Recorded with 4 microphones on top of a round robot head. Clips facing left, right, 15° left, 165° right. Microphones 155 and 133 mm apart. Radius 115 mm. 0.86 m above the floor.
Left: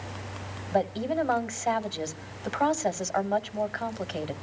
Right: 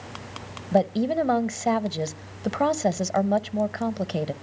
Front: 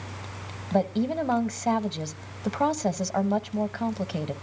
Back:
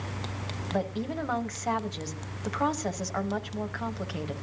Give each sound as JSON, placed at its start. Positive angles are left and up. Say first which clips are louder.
{"t": 0.7, "sound": "a woman speaking", "louder": "right 5 dB, front 6 dB", "azimuth_deg": -45, "distance_m": 1.1}